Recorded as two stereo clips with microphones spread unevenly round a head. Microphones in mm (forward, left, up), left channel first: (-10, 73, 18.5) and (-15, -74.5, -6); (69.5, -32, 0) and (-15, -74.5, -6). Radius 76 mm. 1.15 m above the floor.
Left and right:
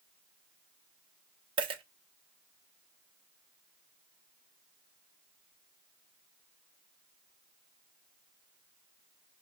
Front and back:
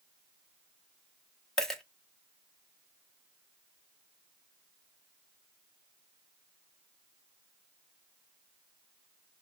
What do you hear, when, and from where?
1.6 s a dropped coin: 50° right, 0.5 m